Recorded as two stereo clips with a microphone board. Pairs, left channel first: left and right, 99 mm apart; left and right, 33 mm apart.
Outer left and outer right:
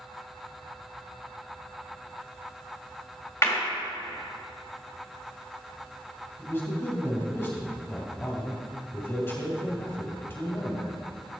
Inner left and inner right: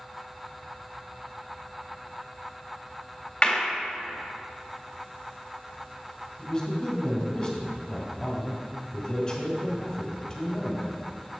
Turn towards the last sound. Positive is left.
turn(degrees=25)  # may be behind; listen again after turning